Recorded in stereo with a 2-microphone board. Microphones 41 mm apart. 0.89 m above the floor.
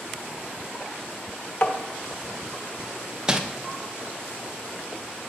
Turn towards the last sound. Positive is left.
turn(degrees=-15)  # may be behind; listen again after turning